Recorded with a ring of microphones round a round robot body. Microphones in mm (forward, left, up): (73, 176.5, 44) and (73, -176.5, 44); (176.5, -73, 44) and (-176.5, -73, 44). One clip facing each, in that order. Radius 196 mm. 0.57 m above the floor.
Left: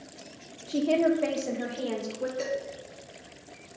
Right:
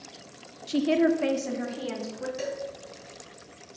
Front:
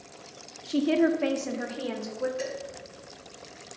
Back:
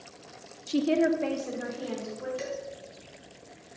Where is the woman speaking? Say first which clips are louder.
Right 2 dB, front 1 dB; 110° right, 0.8 m; by 2.3 s 20° right, 2 m.